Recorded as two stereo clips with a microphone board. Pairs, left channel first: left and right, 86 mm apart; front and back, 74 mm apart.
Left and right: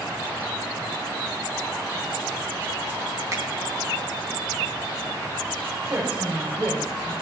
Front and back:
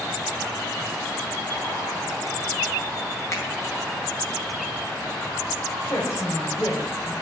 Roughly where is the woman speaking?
Ahead right.